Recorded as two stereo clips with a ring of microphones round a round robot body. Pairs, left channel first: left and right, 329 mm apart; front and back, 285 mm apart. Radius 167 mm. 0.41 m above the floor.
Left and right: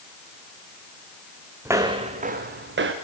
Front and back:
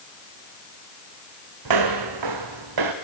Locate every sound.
1.6 s footsteps: 175° right, 1.5 m; by 2.9 s 145° right, 2 m